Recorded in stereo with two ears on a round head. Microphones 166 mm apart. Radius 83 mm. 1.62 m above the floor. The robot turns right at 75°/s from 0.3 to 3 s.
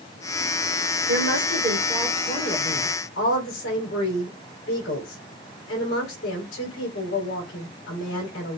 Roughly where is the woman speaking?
Right.